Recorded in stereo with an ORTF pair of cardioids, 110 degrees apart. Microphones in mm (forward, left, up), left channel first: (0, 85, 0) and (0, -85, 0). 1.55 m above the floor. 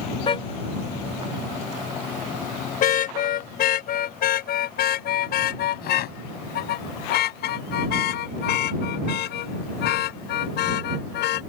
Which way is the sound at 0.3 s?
35° left.